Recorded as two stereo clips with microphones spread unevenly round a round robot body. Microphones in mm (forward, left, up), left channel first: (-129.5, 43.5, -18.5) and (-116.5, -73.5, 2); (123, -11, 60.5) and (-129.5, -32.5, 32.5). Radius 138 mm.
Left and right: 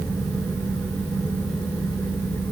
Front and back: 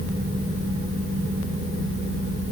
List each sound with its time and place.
Only background noise.